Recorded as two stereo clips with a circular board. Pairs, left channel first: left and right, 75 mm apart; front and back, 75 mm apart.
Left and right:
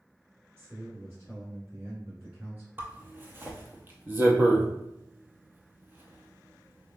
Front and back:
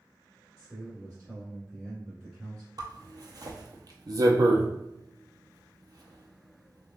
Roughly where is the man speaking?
Right.